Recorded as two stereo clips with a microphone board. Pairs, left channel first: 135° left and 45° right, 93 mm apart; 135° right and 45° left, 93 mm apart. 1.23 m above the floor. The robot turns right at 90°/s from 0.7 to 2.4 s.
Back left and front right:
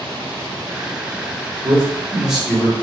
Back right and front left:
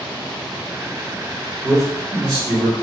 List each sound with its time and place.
1.6 s a man speaking: 20° right, 1.2 m; by 2.7 s 45° left, 1.2 m